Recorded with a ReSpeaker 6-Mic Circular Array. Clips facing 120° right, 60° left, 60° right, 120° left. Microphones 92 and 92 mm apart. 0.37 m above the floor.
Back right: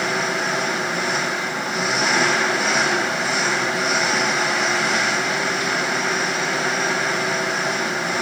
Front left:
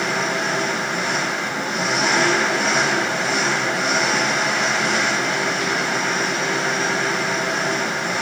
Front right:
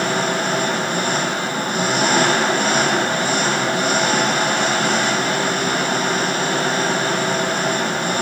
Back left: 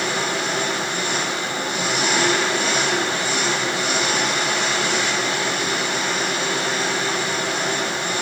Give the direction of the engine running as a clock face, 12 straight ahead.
1 o'clock.